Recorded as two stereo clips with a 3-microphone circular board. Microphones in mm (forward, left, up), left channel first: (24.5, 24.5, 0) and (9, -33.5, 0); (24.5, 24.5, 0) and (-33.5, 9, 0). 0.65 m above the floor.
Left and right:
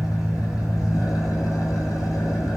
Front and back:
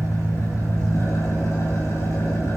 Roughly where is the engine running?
Ahead left.